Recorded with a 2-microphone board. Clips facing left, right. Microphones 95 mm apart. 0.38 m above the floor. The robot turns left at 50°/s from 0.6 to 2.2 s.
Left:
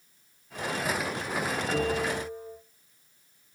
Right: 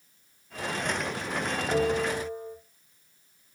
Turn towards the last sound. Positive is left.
turn(degrees=-65)  # may be behind; listen again after turning